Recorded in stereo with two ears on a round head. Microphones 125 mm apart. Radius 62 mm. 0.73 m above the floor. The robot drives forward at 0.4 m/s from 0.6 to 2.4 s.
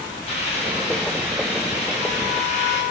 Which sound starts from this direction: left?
A hiss, at 0.3 s.